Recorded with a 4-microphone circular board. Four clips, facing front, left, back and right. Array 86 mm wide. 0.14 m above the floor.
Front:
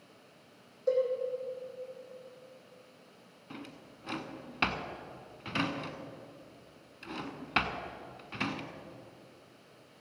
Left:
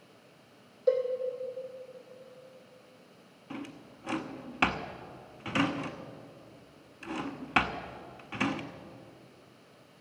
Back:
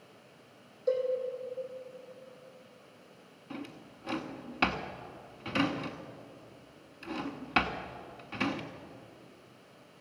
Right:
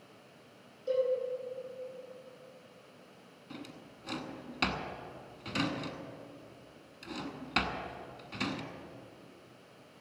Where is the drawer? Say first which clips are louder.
Left 5 dB, back 4 dB; 100° left, 0.8 m.